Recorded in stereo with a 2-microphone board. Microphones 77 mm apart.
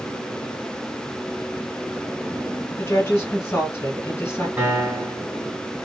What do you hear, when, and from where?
2.8 s a woman speaking: 30° left (ahead or behind), 1.9 m
4.6 s a piano: 20° right (ahead or behind), 1.9 m